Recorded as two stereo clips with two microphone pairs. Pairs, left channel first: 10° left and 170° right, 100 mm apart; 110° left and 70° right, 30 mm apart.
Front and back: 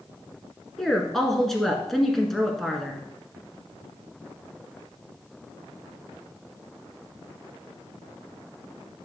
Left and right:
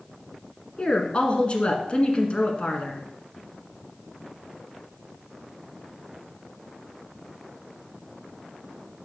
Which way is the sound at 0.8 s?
95° left.